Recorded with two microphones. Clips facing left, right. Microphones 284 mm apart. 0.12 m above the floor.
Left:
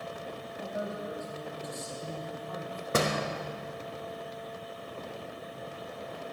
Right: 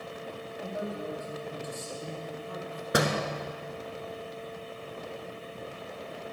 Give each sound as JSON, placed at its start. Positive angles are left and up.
{"t": 0.6, "sound": "a woman speaking", "side_deg": -40, "distance_m": 4.0}
{"t": 2.9, "sound": "a door slam", "side_deg": -15, "distance_m": 0.9}